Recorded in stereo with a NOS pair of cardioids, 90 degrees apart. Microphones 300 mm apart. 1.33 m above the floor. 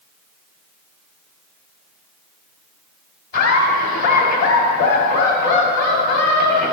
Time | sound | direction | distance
3.3 | laughter | 60° left | 3 m